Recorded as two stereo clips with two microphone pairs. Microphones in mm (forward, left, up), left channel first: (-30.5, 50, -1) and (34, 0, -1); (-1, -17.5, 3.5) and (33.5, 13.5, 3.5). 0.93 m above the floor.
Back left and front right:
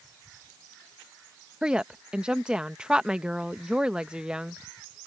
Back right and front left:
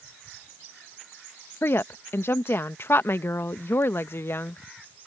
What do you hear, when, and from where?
1.6 s a woman speaking: 115° right